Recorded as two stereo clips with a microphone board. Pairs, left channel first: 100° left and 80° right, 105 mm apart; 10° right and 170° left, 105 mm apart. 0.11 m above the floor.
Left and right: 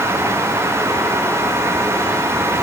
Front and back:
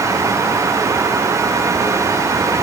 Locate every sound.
Only background noise.